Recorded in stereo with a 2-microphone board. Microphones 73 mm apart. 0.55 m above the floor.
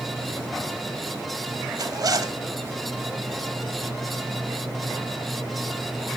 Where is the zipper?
55° right (ahead or behind), 0.7 m.